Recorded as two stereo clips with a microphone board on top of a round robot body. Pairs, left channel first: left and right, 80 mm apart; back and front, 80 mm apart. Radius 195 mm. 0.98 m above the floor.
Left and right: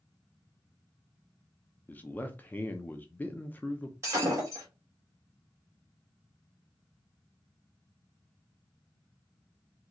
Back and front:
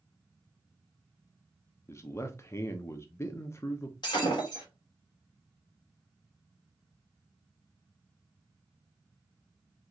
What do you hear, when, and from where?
1.9 s a man speaking: 145° left, 0.8 m
4.0 s breaking glass: 145° right, 2.0 m